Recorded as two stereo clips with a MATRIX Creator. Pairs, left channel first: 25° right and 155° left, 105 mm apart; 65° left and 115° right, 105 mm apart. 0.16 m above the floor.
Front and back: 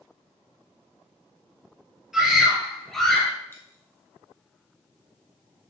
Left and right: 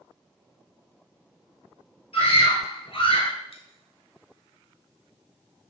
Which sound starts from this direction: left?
A scream, at 2.1 s.